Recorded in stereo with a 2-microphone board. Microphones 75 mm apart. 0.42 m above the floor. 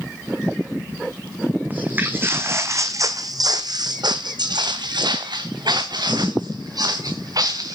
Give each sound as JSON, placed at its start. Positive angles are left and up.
{"t": 1.7, "sound": "footsteps", "side_deg": -20, "distance_m": 1.4}